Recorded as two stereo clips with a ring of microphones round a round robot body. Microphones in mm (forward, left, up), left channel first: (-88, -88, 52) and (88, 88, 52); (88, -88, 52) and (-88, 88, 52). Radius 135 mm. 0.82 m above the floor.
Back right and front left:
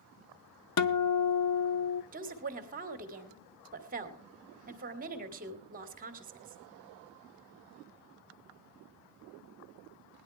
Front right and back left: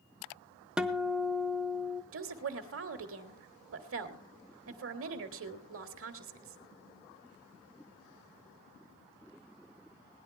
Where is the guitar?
140° right, 0.6 m.